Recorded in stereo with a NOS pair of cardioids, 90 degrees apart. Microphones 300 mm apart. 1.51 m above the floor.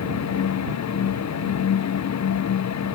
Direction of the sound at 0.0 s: 60° left.